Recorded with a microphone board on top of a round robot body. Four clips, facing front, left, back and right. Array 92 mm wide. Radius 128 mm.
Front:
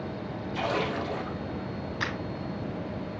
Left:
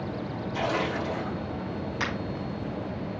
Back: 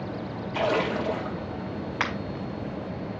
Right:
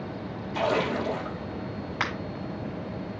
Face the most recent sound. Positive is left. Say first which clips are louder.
# right 2 dB, back 4 dB
turn(degrees=-145)